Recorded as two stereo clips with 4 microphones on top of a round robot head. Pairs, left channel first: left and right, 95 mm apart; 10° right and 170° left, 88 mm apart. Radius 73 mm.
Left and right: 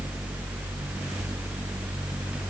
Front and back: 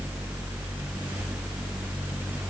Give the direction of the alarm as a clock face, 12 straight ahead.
No alarm in this recording.